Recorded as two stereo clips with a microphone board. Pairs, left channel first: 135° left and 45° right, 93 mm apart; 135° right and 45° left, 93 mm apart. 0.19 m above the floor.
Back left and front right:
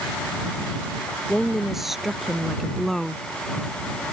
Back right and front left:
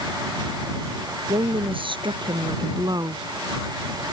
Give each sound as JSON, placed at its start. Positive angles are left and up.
{"t": 1.3, "sound": "a woman speaking", "azimuth_deg": 40}